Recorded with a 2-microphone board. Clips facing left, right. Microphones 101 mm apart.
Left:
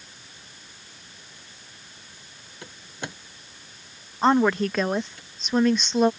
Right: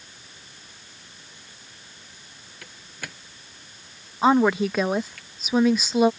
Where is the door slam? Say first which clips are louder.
Left 4 dB; 25° left (ahead or behind).